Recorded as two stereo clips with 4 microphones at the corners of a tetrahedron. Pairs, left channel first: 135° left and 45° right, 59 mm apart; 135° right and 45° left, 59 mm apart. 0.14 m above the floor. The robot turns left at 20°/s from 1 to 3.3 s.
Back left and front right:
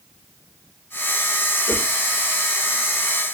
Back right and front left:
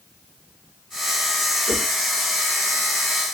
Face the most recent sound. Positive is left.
turn(degrees=45)